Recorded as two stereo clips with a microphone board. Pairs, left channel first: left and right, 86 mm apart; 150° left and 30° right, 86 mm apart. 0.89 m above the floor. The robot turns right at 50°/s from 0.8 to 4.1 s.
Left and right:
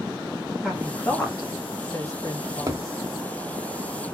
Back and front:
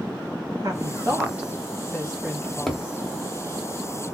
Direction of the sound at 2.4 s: 135° right.